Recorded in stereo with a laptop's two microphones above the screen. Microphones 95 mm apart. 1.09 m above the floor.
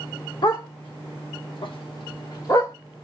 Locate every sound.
0.4 s a dog barking: 45° left (ahead or behind), 1.3 m; by 2.8 s 35° left (ahead or behind), 1.1 m